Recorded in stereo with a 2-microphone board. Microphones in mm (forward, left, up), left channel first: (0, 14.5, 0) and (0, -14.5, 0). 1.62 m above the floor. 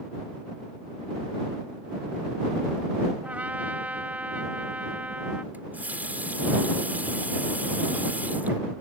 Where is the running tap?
70° right (ahead or behind).